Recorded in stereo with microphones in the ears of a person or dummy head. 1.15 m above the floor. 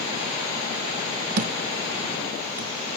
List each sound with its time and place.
1.4 s a thud: 40° right (ahead or behind)